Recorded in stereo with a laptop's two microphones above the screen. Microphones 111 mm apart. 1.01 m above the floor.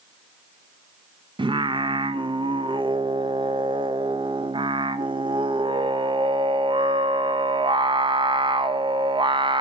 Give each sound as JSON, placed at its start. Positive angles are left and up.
{"t": 1.4, "sound": "singing", "side_deg": -50, "distance_m": 0.5}